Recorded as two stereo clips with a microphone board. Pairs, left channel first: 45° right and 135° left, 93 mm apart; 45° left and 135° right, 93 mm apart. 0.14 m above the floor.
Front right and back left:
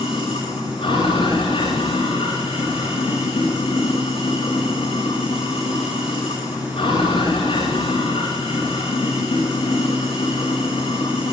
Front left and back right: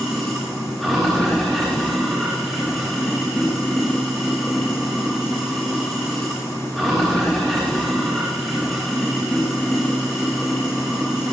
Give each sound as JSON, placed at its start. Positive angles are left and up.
{"t": 0.0, "sound": "running water", "azimuth_deg": -40, "distance_m": 8.5}